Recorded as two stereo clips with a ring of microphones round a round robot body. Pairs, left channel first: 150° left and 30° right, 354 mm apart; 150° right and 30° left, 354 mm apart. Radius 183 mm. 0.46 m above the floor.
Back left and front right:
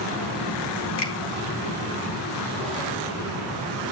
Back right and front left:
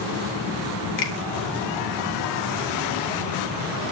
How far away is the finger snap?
About 4.5 m.